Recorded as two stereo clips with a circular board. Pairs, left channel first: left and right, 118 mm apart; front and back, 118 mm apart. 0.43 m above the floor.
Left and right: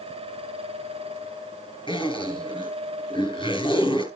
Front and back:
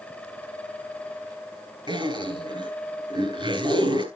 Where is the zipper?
135° left, 4.5 m.